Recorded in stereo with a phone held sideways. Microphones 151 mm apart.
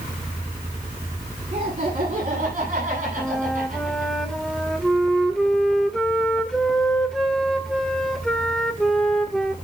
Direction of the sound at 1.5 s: 40° right (ahead or behind).